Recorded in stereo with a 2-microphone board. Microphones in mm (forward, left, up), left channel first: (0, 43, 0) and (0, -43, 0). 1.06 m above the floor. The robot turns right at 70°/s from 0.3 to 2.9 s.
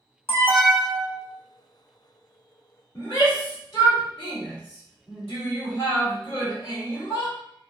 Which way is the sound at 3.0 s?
50° left (ahead or behind).